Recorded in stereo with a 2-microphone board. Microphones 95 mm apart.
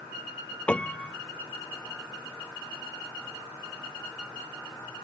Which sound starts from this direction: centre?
A piano, at 0.7 s.